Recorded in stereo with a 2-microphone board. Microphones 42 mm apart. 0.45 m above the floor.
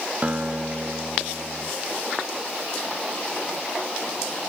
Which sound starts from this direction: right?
A guitar, at 0.2 s.